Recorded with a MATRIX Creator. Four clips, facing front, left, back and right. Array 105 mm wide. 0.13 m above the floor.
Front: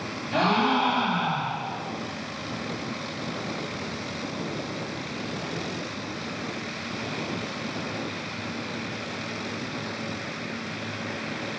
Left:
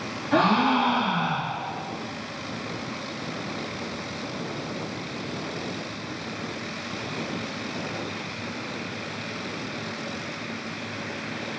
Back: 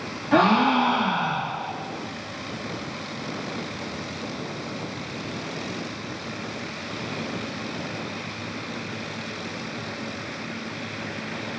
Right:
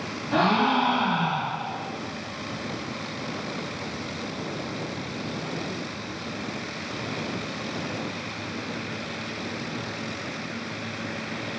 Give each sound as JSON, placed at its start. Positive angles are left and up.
{"t": 0.3, "sound": "a gasp", "azimuth_deg": 170, "distance_m": 3.0}